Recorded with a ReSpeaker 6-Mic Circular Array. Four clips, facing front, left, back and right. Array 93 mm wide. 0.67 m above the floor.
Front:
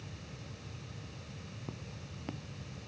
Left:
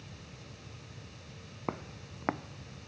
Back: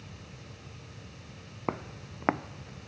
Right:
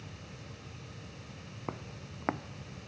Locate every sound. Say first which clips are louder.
1.7 s footsteps: left 3 dB, back 14 dB; 165° left; by 2.9 s 170° right